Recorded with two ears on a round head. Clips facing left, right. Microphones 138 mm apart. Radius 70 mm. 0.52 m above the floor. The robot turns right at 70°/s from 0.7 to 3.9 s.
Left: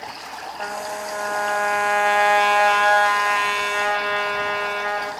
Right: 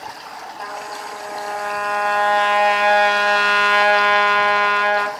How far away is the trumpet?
About 2.5 m.